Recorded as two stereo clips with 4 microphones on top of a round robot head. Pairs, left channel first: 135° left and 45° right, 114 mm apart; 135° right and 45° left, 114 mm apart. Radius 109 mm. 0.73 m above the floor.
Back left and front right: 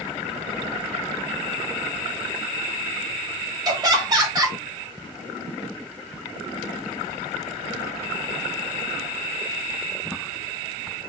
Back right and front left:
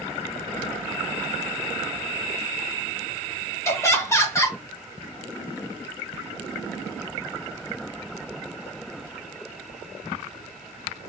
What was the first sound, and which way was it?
Laughter, 80° right.